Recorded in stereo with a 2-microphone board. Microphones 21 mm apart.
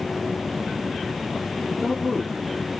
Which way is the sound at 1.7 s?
15° right (ahead or behind).